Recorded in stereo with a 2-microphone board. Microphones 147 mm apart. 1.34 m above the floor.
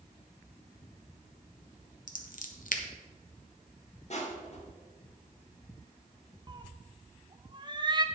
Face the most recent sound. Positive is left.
turn(degrees=-30)  # may be behind; listen again after turning